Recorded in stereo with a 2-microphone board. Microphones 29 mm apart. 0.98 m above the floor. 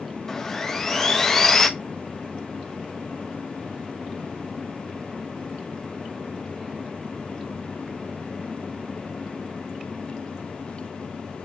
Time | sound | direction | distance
0.3 | sawing | 10° left (ahead or behind) | 1.1 m